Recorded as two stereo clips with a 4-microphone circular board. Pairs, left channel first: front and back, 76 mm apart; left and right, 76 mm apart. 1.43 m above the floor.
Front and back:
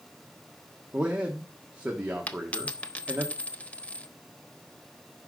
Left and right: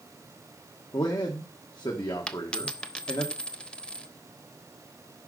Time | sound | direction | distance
0.9 | a man speaking | 105° left | 1.5 m
2.3 | a dropped coin | 40° left | 0.8 m